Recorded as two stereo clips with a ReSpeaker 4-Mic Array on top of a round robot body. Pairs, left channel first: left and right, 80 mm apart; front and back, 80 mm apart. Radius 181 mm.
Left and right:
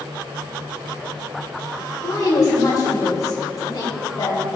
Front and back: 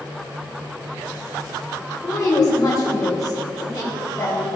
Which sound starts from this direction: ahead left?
A woman speaking, at 2.0 s.